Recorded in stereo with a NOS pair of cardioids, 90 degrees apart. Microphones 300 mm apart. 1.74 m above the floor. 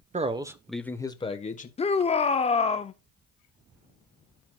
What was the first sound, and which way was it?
A man speaking, 25° right.